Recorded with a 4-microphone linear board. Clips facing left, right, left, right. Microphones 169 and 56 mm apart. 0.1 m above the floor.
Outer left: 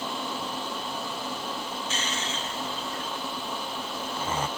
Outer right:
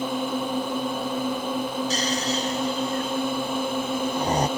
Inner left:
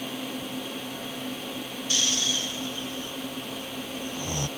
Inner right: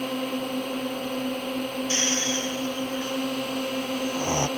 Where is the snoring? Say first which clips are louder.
Outer right 8 dB, inner left 1 dB; 35° right (ahead or behind).